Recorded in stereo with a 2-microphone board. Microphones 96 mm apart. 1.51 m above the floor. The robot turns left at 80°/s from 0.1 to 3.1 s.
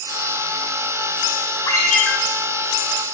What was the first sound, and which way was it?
A ringtone, 40° left.